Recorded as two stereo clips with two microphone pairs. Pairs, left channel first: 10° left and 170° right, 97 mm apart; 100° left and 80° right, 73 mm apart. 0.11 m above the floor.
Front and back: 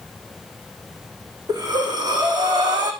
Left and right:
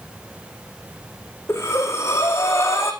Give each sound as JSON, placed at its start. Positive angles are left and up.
{"t": 1.5, "sound": "breathing", "azimuth_deg": 150, "distance_m": 4.0}